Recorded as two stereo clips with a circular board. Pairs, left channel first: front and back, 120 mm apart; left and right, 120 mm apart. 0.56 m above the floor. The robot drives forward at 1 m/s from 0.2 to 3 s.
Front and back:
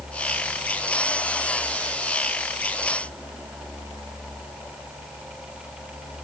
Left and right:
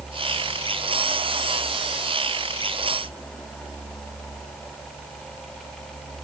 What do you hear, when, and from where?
Only background noise.